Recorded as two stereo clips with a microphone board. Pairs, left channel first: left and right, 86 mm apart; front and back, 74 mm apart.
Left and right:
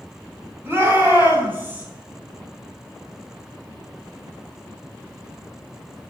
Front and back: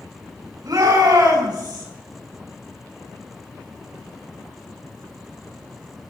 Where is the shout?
150° right, 7.5 m; by 1.9 s 160° right, 8.5 m.